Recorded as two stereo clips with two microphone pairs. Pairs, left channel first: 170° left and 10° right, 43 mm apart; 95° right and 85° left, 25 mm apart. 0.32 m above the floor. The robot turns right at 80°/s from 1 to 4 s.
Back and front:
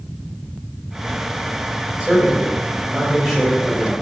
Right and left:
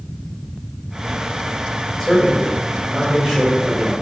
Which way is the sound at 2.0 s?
65° right.